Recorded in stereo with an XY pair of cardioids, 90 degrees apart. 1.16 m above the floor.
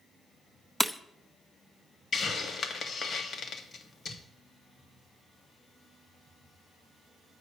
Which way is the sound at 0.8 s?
Straight ahead.